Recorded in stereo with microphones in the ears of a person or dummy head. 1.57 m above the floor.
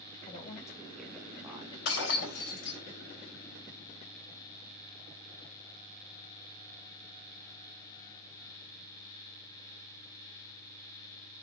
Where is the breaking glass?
55° left (ahead or behind), 3.5 m.